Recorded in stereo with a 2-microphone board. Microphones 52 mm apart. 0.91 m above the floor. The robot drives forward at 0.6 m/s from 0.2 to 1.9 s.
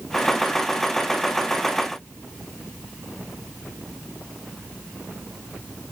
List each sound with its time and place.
Only background noise.